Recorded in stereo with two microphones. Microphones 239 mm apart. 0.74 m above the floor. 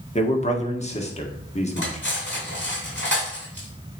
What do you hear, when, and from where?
0.1 s a man speaking: 30° left (ahead or behind), 1.3 m
1.8 s cutlery clinking: 55° left (ahead or behind), 4 m